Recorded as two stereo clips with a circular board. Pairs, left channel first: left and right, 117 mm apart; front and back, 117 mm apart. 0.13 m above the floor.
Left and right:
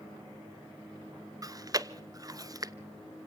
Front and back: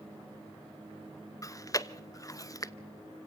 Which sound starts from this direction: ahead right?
Chewing, at 1.4 s.